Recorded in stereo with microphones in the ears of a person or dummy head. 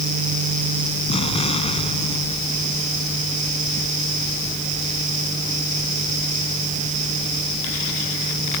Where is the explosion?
30° left (ahead or behind).